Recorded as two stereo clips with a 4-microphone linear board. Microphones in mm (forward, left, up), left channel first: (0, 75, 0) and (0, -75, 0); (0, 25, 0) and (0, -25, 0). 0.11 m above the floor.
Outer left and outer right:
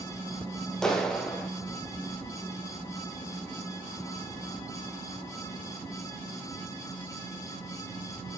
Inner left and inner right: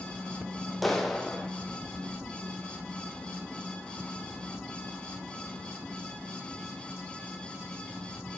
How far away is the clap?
About 3 m.